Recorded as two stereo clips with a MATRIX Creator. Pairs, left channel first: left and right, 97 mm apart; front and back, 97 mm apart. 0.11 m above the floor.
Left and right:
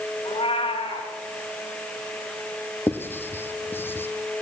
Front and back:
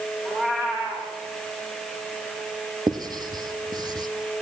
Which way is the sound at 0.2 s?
105° left.